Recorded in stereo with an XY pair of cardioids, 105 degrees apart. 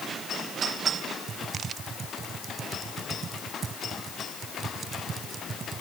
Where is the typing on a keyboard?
45° right.